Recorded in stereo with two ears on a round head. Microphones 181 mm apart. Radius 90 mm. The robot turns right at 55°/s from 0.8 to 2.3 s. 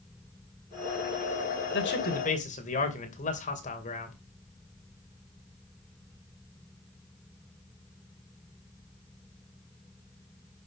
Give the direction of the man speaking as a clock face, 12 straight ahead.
8 o'clock.